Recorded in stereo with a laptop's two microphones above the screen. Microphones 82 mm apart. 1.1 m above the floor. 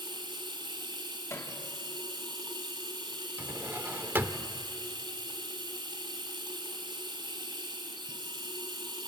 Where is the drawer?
25° right (ahead or behind), 0.8 m.